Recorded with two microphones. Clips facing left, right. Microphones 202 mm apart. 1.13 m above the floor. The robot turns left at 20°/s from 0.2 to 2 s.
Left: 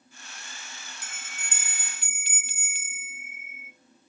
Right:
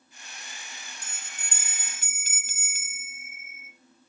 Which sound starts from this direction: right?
A bell, at 1.0 s.